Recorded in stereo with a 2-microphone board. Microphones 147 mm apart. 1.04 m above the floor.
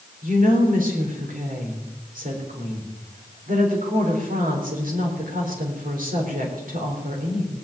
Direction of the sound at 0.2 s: 70° right (ahead or behind).